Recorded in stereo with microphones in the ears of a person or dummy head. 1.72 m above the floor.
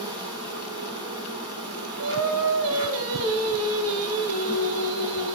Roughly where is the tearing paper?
No tearing paper in this recording.